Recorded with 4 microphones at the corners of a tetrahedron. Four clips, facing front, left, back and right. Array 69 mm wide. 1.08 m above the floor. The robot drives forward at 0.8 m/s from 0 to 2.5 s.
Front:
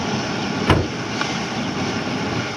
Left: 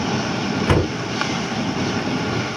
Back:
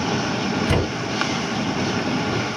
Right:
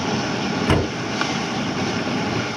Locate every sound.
0.7 s a door slam: 5° left, 6 m